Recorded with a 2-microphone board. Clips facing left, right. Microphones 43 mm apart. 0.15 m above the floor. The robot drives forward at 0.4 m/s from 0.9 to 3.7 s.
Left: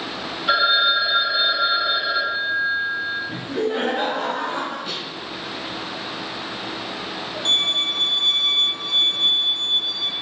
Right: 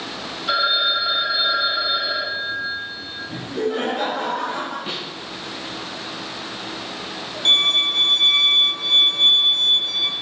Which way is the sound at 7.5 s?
65° right (ahead or behind).